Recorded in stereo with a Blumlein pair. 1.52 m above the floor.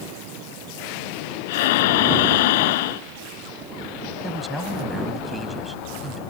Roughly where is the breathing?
Ahead left.